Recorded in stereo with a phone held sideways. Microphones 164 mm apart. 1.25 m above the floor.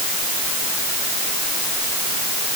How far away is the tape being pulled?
I don't hear tape being pulled.